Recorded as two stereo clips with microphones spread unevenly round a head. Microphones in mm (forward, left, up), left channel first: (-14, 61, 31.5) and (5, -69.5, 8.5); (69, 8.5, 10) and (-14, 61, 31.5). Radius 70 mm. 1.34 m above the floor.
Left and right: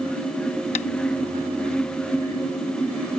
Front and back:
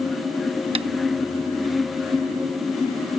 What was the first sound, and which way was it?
Tapping, 135° left.